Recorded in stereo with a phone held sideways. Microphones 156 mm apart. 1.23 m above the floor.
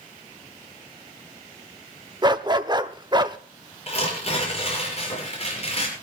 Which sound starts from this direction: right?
A dog barking, at 2.2 s.